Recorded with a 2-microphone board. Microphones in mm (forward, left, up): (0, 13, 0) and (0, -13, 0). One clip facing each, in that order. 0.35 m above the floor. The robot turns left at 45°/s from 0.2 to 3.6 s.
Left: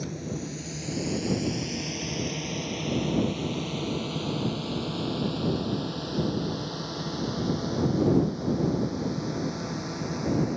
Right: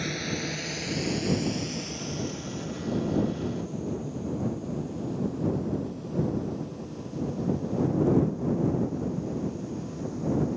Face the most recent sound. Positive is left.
turn(degrees=70)  # may be behind; listen again after turning